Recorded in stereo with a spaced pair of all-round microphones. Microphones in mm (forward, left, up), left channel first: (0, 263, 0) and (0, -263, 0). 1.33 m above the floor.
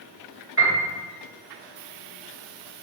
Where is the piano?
25° right (ahead or behind), 1.3 m.